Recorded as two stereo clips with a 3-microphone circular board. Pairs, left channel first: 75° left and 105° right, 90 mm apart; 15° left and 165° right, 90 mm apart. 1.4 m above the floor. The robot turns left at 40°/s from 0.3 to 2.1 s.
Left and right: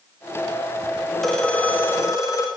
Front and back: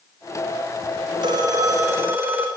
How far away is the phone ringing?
About 3.5 m.